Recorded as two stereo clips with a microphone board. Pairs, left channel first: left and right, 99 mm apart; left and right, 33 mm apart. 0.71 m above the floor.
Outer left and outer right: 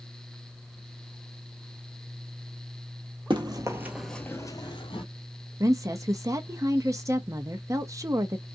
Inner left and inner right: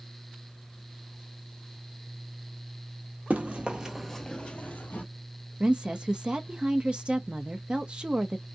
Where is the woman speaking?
30° right (ahead or behind), 0.6 m.